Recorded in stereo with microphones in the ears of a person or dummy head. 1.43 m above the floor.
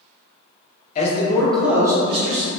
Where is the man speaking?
40° left (ahead or behind), 0.8 m; by 2.5 s 40° right (ahead or behind), 1.1 m.